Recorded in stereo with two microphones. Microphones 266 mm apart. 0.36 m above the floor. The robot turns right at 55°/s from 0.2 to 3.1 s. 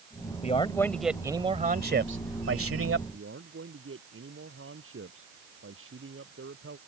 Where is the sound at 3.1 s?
50° right (ahead or behind).